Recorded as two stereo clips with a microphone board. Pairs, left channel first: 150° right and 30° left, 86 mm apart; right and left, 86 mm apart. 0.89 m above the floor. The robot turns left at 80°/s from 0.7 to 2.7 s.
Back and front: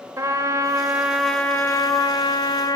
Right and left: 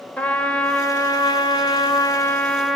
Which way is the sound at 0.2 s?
20° right.